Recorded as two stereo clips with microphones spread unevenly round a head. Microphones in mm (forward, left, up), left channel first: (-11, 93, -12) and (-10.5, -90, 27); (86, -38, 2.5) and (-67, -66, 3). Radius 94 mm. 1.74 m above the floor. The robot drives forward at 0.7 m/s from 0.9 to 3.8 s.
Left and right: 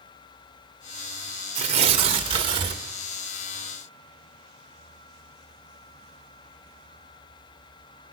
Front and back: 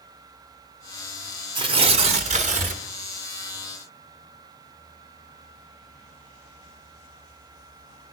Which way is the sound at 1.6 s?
120° right.